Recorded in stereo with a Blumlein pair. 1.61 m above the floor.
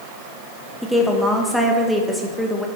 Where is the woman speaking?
Straight ahead, 1.7 m.